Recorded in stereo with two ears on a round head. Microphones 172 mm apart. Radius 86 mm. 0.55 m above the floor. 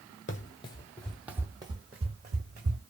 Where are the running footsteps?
45° left (ahead or behind), 0.7 m; by 2.8 s 45° right (ahead or behind), 1.5 m.